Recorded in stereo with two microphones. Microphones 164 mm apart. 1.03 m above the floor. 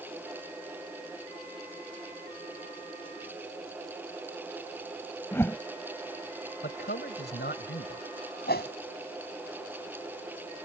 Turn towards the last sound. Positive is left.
turn(degrees=70)  # may be behind; listen again after turning